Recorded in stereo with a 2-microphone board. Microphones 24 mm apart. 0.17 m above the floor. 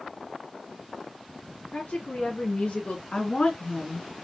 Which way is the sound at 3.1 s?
50° left (ahead or behind).